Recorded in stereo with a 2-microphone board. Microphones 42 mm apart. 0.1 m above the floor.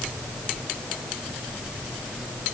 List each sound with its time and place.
Only background noise.